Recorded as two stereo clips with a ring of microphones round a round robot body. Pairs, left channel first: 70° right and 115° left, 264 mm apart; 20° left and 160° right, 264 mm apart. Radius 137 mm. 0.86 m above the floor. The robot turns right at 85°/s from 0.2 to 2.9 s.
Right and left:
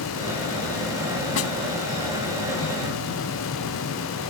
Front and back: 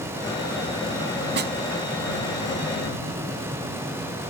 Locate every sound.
1.4 s a snare drum: 110° right; by 1.5 s 95° right